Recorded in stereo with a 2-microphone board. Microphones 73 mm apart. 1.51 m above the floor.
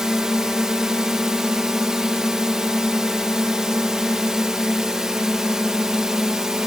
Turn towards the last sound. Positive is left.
turn(degrees=-10)  # may be behind; listen again after turning